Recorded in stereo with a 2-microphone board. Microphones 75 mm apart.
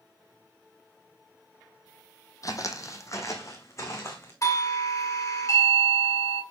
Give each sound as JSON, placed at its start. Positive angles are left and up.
{"t": 2.4, "sound": "footsteps", "side_deg": 50, "distance_m": 1.1}
{"t": 4.4, "sound": "a doorbell", "side_deg": 45, "distance_m": 1.5}